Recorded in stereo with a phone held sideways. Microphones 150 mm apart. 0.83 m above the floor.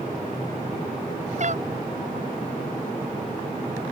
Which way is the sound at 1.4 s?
55° right (ahead or behind).